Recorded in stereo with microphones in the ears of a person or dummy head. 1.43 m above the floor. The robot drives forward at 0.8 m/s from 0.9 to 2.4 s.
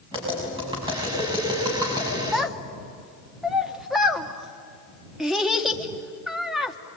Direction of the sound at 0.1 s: 25° right (ahead or behind).